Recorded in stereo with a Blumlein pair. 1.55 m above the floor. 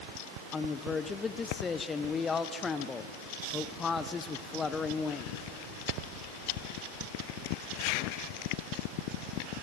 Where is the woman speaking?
20° left, 0.9 m.